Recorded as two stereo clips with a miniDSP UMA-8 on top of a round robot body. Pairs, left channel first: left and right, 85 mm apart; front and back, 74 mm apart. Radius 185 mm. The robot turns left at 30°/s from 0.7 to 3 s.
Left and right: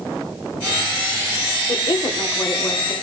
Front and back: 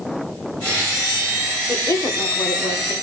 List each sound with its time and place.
1.7 s a woman speaking: 55° left, 3.5 m; by 2.9 s 20° left, 3.5 m